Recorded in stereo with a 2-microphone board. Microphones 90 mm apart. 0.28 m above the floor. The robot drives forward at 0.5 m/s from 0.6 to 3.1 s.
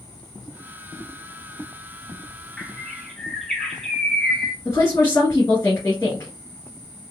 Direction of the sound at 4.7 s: 30° left (ahead or behind).